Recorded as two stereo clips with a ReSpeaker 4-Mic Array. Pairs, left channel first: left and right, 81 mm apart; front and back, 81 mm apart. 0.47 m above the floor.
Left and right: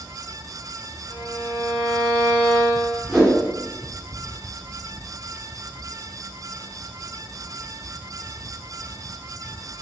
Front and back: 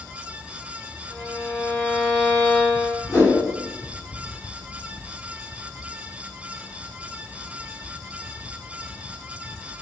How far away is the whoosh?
About 1.6 m.